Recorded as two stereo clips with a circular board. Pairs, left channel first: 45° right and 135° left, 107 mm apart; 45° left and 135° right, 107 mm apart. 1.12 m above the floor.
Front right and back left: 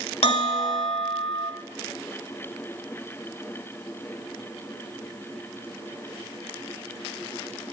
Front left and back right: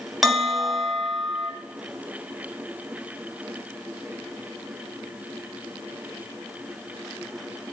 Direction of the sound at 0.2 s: 45° right.